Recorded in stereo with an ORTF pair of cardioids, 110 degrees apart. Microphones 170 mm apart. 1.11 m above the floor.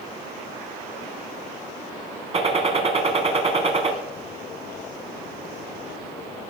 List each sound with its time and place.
2.3 s a gunshot: 40° right, 3 m